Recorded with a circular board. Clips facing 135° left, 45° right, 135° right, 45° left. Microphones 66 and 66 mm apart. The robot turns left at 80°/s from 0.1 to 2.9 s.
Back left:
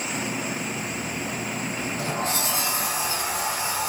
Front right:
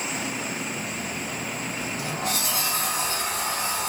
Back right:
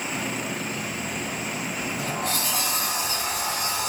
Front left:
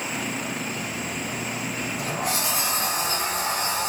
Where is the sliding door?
150° left, 0.7 m; by 3.9 s 60° left, 0.7 m.